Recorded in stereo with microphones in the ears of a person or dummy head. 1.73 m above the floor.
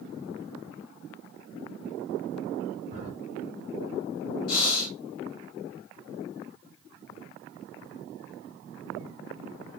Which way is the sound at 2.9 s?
45° right (ahead or behind).